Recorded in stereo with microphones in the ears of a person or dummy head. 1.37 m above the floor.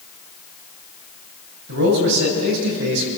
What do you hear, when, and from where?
1.7 s a man speaking: 55° right (ahead or behind), 7.5 m